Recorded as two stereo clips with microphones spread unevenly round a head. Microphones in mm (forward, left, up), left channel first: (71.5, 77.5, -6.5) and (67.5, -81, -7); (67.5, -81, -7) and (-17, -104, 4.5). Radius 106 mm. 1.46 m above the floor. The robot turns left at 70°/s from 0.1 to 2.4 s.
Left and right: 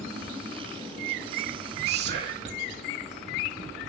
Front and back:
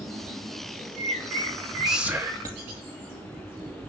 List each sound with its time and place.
1.9 s whispering: 75° right, 2.5 m; by 2.7 s 115° right, 2.5 m